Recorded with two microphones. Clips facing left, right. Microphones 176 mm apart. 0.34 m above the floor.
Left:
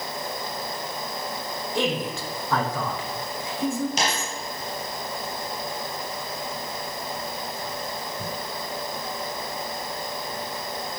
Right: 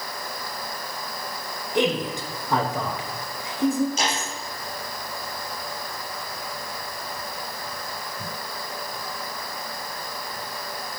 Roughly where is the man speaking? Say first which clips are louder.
Right 3 dB; centre.